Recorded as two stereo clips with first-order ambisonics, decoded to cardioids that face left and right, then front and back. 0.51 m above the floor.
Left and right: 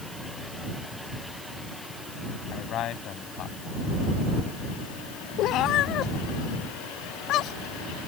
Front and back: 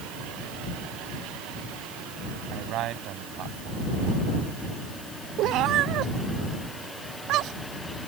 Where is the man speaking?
140° left.